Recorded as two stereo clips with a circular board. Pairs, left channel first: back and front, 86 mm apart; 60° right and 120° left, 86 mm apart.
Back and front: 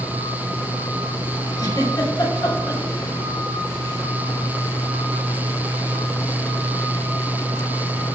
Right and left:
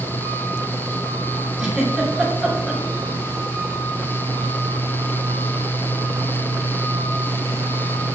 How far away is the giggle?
About 2.5 m.